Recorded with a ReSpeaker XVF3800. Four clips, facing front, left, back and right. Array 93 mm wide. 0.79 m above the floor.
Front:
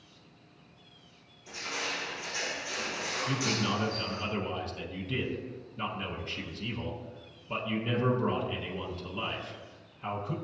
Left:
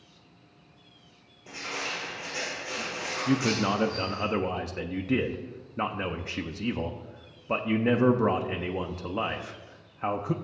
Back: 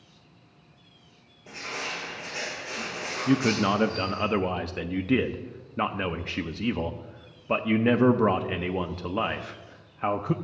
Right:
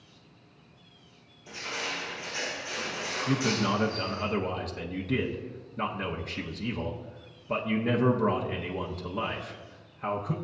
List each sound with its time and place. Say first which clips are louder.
1.5 s crushing: even, back 2 dB; 130° left, 4.5 m
3.3 s a man speaking: left 2 dB, back 10 dB; 160° left, 0.7 m